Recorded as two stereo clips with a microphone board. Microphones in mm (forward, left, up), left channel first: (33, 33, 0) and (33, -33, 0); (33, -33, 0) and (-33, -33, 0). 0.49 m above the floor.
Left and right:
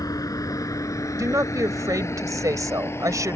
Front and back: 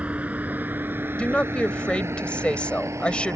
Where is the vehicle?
110° left; by 3.4 s 140° left.